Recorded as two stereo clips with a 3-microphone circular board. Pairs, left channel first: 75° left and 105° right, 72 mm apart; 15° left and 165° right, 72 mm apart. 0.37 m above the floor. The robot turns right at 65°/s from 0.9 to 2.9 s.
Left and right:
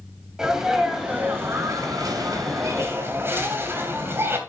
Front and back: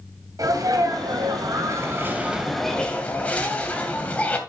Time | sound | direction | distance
0.4 | a sneeze | 175° left | 2.5 m